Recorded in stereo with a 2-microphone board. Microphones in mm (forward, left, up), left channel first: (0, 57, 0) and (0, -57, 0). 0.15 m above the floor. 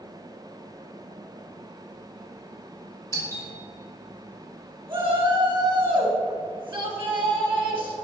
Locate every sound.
3.1 s a doorbell: 25° left (ahead or behind), 2 m
4.9 s a shout: 20° right (ahead or behind), 1.7 m